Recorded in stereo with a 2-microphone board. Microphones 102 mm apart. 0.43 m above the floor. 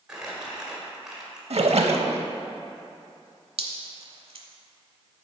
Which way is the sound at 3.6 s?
65° right (ahead or behind).